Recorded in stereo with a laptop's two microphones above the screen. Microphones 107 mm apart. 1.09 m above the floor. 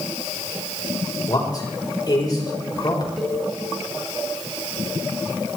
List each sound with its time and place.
1.3 s a man speaking: 35° left (ahead or behind), 4.5 m
3.2 s a cowbell: 5° right (ahead or behind), 4 m